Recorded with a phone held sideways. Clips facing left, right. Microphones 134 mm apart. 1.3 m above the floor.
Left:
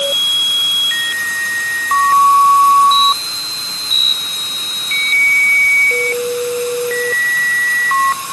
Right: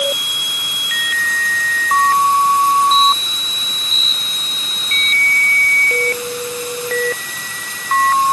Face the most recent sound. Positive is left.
No sound to turn to.